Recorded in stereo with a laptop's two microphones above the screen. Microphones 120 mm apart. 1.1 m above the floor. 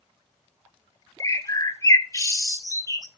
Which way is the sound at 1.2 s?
25° left (ahead or behind).